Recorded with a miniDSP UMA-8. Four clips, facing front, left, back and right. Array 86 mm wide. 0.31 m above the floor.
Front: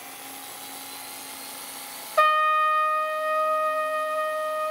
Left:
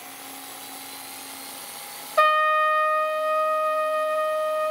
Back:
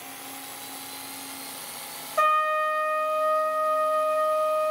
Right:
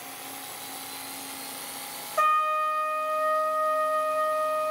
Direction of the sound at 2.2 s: 60° left.